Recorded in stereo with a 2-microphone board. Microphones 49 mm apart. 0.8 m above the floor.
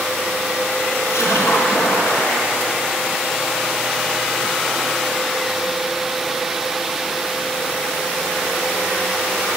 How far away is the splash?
About 3.5 m.